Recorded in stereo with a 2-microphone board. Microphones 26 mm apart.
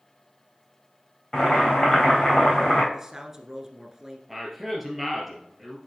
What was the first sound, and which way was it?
Boiling, 25° left (ahead or behind).